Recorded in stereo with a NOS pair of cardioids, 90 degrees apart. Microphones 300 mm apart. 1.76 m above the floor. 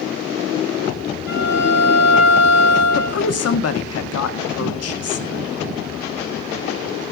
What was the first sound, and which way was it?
A violin, 40° left.